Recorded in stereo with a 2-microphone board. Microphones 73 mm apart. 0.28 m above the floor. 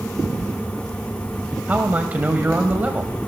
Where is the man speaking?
25° right (ahead or behind), 1.2 m.